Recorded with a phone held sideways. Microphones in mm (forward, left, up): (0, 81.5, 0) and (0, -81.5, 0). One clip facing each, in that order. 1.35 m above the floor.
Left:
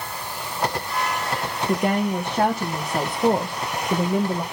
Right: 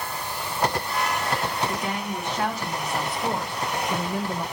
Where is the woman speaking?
55° left (ahead or behind), 2 m; by 4.4 s 15° left (ahead or behind), 0.8 m.